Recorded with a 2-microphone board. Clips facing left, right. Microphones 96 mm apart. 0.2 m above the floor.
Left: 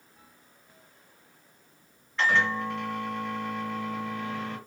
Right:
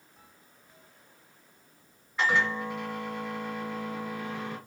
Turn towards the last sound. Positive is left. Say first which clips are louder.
# left 2 dB
turn(degrees=-10)  # may be behind; listen again after turning